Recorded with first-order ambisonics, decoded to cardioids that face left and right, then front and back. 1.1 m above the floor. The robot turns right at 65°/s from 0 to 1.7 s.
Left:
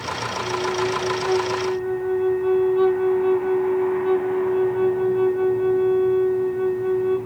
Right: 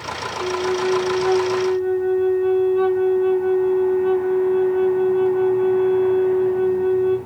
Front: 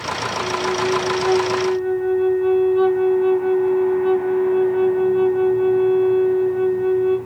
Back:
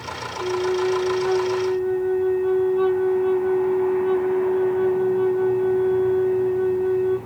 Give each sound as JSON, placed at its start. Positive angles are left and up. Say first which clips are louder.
{"t": 0.4, "sound": "a flute", "louder": "right 3 dB, back 1 dB", "azimuth_deg": -90, "distance_m": 0.8}